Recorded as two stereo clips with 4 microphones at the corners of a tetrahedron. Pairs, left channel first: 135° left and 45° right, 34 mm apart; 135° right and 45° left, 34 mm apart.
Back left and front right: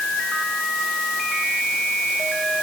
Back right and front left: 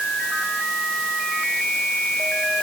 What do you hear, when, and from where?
Only background noise.